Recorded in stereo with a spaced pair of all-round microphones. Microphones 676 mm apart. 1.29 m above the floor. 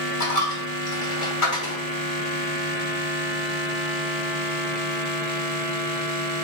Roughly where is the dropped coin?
Left.